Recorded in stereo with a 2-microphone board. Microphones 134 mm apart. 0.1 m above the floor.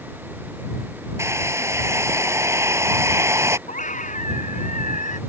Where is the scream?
70° left (ahead or behind).